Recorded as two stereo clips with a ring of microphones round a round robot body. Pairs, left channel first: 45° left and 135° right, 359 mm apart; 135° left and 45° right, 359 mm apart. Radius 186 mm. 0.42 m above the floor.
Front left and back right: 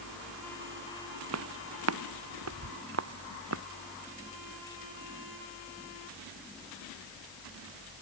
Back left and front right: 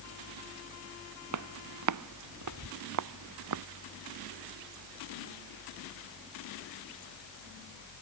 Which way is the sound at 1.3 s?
85° right.